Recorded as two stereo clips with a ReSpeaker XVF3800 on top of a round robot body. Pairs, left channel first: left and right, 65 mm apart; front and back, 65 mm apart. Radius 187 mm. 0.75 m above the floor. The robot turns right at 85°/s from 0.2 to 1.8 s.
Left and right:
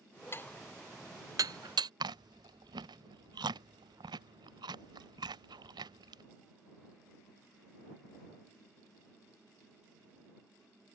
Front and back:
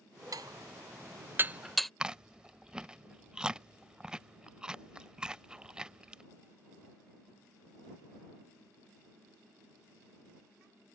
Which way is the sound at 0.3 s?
145° left.